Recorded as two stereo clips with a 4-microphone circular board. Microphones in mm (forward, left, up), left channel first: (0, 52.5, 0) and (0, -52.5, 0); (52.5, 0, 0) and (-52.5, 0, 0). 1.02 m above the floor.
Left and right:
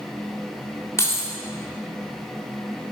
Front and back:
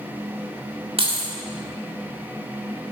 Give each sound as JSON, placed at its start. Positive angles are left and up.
{"t": 1.0, "sound": "keys jangling", "azimuth_deg": 150, "distance_m": 1.7}